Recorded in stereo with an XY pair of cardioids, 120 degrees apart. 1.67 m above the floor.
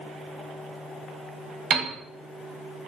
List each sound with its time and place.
1.7 s a piano: 60° right, 0.8 m